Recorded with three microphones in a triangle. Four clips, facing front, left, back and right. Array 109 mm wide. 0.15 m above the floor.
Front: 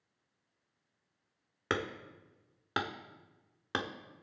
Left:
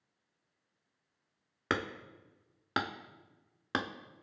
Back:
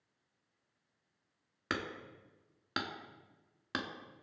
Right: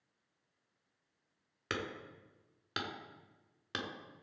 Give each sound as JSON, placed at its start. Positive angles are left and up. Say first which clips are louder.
{"t": 1.7, "sound": "hammering", "louder": "left 5 dB, front 4 dB", "azimuth_deg": 70, "distance_m": 0.7}